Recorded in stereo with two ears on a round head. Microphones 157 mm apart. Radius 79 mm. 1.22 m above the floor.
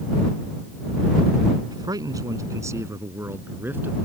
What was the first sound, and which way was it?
A man speaking, 25° right (ahead or behind).